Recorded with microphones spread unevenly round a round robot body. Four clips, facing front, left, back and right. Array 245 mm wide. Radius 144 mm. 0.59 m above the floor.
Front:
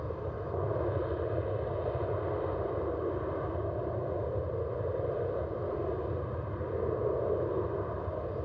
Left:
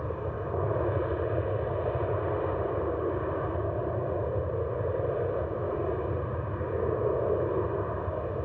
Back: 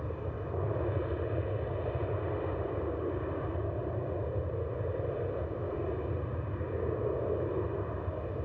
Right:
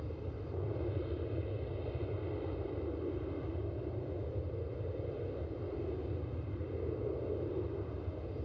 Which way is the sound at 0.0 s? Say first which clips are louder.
Left 11 dB, front 2 dB; 75° left.